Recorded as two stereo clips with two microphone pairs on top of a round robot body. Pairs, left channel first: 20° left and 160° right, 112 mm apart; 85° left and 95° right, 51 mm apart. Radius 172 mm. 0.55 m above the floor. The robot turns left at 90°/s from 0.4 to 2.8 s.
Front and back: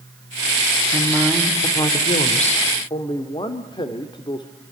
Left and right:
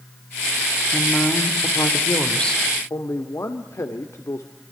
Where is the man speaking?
65° left, 1.8 m.